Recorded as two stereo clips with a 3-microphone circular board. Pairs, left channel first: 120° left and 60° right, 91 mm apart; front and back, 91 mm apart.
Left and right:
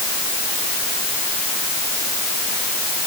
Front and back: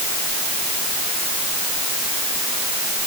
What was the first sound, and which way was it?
Only background noise.